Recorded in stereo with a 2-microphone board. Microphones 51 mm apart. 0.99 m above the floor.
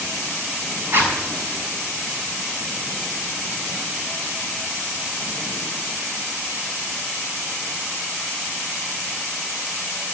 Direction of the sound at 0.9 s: 40° right (ahead or behind).